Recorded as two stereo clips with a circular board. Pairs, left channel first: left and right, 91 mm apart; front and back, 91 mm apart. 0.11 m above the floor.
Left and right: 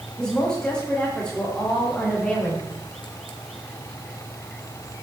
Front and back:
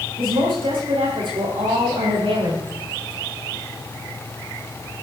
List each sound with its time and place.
0.2 s a woman speaking: 170° left, 8.5 m